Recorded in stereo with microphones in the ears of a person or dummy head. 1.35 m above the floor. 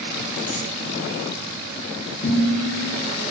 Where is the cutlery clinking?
45° left (ahead or behind), 1.2 m.